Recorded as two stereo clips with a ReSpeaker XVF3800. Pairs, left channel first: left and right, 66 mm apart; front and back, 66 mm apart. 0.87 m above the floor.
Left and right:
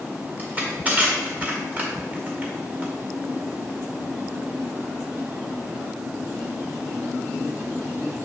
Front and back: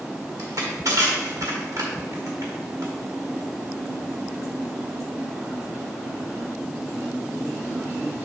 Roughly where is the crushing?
Behind right.